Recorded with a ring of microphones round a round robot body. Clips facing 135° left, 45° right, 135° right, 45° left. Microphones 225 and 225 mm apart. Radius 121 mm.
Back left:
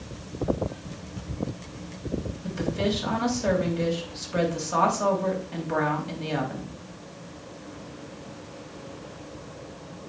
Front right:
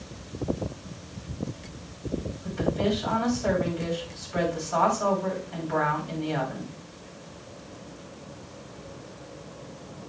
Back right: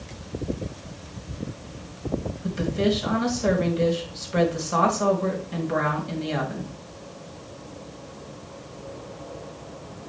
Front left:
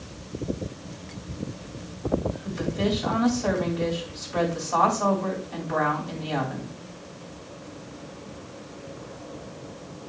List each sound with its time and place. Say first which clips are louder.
2.4 s a woman speaking: front right 1 dB, back right 3 dB; 170° left, 3 m